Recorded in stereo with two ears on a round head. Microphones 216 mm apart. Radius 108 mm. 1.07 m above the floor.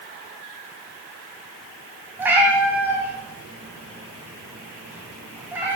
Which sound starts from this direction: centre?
A cat meowing, at 2.2 s.